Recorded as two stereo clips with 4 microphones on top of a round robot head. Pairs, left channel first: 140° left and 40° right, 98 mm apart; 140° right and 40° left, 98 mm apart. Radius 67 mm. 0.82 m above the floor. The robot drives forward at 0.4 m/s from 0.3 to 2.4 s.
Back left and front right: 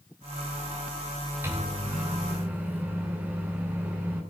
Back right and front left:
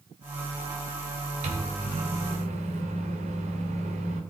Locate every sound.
1.4 s a microwave: 30° left, 2.5 m; by 4.2 s 35° left, 2.5 m